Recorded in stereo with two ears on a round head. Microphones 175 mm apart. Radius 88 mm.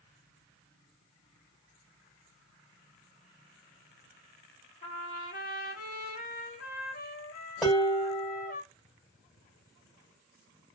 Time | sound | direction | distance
4.8 | a trumpet | 40° left (ahead or behind) | 1.1 m
7.6 | dishes clattering | centre (ahead or behind) | 1.8 m